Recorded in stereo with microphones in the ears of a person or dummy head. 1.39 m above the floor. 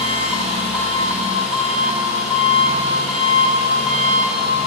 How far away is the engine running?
About 1.2 m.